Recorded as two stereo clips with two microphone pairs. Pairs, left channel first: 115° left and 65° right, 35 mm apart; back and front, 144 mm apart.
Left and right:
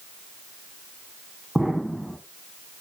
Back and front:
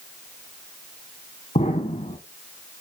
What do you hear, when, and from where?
1.6 s an explosion: 145° right, 1.3 m